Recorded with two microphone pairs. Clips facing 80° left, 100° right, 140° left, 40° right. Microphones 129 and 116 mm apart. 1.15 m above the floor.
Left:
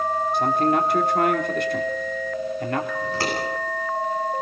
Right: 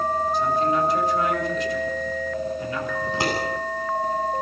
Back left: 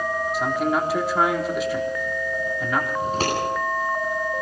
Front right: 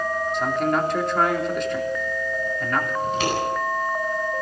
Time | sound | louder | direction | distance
0.3 | a man speaking | left 3 dB, even | 55° left | 3 m
3.0 | scissors | right 1 dB, even | 170° right | 9.5 m